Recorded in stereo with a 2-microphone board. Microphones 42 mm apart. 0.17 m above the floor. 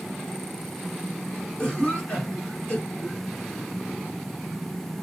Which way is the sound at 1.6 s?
20° left (ahead or behind).